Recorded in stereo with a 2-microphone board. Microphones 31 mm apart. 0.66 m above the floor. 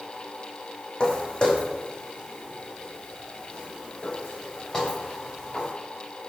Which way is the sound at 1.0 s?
35° left (ahead or behind).